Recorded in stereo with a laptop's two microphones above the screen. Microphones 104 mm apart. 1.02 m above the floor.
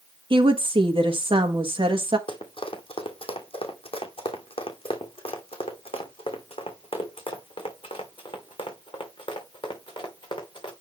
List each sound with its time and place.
0.3 s a woman speaking: 55° right (ahead or behind), 1.6 m
2.3 s running footsteps: 55° left (ahead or behind), 2.0 m; by 10.7 s 50° left (ahead or behind), 5 m